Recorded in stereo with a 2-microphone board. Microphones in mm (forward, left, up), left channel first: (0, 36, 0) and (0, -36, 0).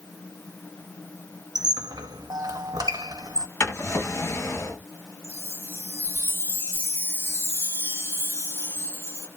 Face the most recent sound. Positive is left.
turn(degrees=-30)  # may be behind; listen again after turning